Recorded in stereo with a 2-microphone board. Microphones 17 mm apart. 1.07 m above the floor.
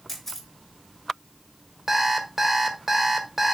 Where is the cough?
I don't hear a cough.